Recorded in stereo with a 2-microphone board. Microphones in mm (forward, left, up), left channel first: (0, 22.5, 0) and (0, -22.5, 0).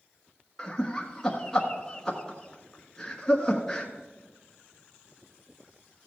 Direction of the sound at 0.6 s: 10° left (ahead or behind).